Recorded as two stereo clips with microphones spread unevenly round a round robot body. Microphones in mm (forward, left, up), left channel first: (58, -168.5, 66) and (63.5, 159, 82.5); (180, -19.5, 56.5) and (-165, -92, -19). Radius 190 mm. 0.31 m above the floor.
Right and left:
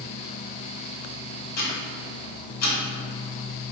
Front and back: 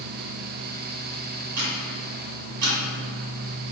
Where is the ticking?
135° right, 1.6 m.